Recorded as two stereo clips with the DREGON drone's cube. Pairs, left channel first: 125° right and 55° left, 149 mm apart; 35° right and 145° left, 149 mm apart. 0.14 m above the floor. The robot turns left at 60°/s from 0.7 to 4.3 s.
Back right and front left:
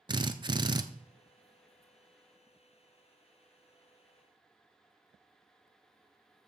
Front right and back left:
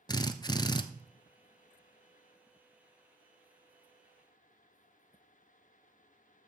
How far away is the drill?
About 0.6 m.